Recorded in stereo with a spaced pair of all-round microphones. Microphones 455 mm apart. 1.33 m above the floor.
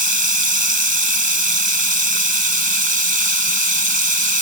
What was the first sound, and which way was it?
Running water, 70° right (ahead or behind).